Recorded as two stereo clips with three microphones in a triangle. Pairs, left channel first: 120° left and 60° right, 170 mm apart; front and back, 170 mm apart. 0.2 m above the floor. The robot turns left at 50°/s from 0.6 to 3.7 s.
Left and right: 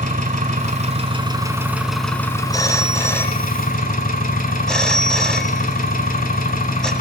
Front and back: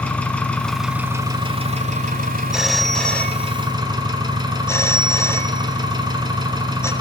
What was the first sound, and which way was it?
An engine running, 80° right.